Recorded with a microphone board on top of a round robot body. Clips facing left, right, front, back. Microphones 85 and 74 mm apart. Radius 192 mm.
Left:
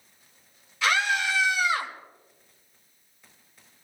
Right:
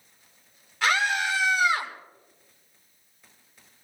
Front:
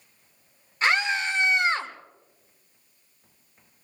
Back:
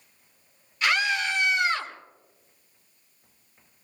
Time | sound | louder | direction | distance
0.8 | a scream | even, front 1 dB | 55° right | 5.5 m